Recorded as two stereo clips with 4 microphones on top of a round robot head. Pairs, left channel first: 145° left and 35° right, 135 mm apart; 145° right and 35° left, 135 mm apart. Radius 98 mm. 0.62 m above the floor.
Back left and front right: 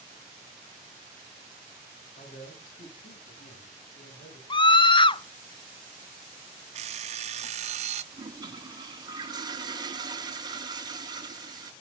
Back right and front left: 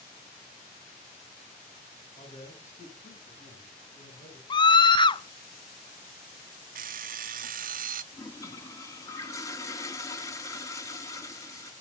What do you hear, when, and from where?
2.2 s a man speaking: straight behind, 8 m; by 4.4 s 165° left, 9 m
4.5 s a scream: straight behind, 0.7 m
6.8 s an alarm clock: 10° left, 0.6 m
8.1 s a toilet flushing: 85° right, 1.8 m